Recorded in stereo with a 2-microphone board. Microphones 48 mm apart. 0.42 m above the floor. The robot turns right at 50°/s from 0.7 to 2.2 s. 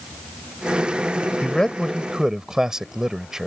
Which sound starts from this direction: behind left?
A man speaking, at 1.4 s.